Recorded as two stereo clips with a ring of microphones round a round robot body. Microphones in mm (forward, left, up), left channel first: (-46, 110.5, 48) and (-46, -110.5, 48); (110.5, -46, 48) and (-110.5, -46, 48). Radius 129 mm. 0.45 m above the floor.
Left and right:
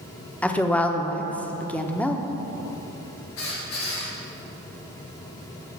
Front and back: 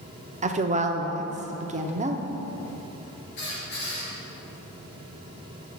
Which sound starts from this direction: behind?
A woman speaking, at 0.4 s.